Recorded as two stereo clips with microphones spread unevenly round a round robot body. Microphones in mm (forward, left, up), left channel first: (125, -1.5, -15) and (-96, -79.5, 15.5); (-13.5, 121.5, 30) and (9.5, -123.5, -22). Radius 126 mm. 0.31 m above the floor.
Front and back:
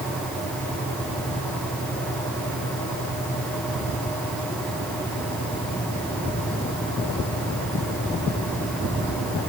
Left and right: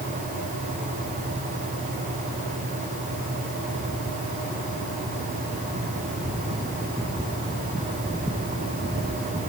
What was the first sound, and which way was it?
Only background noise.